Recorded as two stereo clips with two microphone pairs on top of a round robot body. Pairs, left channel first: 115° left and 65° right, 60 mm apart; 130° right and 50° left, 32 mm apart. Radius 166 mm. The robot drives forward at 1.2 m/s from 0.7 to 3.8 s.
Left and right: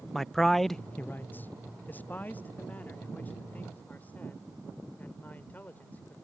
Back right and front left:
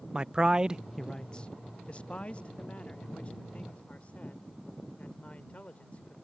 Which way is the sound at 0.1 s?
25° left.